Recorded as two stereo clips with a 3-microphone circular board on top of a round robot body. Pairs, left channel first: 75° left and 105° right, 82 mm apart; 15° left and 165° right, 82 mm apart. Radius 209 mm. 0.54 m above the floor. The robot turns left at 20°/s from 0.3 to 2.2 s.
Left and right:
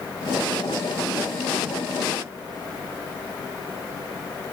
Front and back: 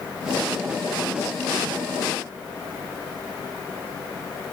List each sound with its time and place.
Only background noise.